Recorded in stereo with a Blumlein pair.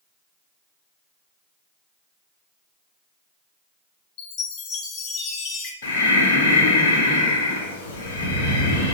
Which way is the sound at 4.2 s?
35° left.